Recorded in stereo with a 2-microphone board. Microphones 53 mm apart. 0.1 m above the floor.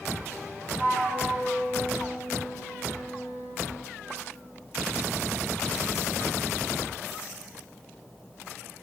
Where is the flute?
30° right (ahead or behind), 3 m.